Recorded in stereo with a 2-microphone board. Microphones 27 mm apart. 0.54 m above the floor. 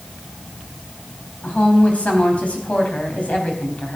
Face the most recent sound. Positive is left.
turn(degrees=55)  # may be behind; listen again after turning